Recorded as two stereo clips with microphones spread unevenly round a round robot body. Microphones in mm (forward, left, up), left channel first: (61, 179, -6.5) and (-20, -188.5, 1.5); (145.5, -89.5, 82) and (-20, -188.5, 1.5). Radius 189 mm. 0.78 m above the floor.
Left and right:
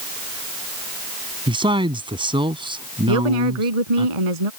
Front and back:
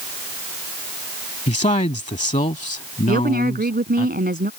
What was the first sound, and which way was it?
A man speaking, 25° right.